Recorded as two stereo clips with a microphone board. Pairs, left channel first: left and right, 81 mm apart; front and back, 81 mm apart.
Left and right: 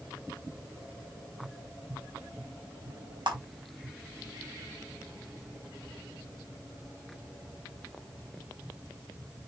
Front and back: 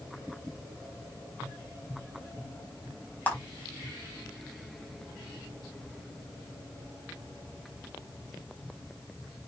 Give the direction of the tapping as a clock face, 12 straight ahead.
2 o'clock.